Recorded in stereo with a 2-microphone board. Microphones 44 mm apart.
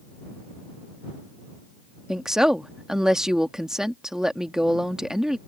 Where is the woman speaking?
15° right (ahead or behind).